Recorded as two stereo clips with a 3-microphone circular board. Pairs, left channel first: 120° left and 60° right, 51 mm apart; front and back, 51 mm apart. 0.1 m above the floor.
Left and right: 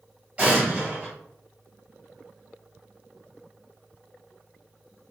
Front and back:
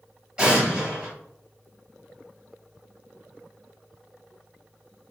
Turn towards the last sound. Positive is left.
turn(degrees=-115)